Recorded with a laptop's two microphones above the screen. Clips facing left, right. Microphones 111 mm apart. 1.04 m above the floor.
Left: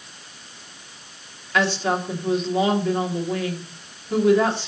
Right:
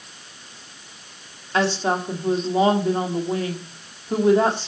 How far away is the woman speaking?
About 2.0 m.